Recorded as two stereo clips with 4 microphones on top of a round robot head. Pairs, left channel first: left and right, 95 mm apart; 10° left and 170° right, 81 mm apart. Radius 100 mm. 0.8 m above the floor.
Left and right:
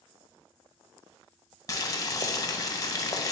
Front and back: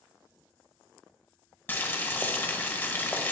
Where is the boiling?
60° left, 0.8 m.